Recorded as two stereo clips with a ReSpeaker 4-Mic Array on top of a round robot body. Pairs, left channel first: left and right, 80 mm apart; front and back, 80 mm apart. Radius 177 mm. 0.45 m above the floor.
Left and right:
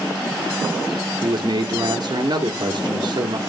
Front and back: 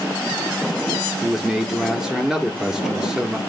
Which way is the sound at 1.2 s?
100° right.